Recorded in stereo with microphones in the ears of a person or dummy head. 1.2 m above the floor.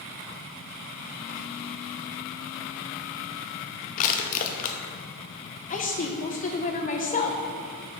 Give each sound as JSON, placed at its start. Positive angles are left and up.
{"t": 4.0, "sound": "crushing", "side_deg": 50, "distance_m": 0.8}
{"t": 5.7, "sound": "a woman speaking", "side_deg": 45, "distance_m": 1.0}